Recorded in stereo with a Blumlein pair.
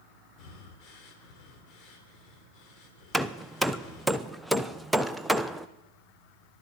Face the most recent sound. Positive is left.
turn(degrees=0)